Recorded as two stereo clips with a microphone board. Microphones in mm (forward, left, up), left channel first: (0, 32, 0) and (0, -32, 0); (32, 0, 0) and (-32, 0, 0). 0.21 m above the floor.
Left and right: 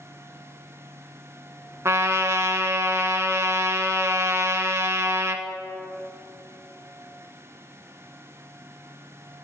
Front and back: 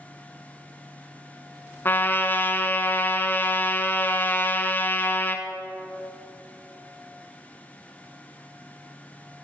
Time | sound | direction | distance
1.9 | a trumpet | 55° right | 0.6 m